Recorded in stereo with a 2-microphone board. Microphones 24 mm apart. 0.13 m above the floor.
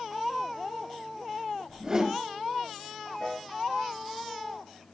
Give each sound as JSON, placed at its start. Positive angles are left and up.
{"t": 1.7, "sound": "a whoosh", "side_deg": -25, "distance_m": 2.0}
{"t": 3.2, "sound": "a piano", "side_deg": 55, "distance_m": 2.5}